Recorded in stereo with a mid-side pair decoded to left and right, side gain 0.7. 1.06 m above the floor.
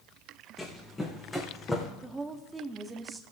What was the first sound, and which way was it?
Running footsteps, 15° left.